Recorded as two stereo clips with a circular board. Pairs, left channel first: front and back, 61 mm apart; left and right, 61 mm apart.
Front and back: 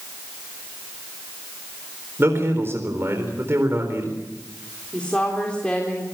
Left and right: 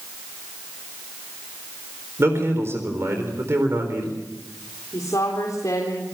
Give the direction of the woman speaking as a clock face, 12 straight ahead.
10 o'clock.